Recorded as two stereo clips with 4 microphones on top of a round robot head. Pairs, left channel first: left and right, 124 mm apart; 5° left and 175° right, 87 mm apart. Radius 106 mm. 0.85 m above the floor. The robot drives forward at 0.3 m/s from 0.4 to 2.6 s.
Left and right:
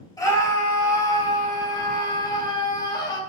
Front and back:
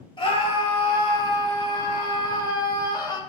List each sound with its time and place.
0.2 s a scream: 25° left, 3 m; by 3.2 s 35° left, 2.5 m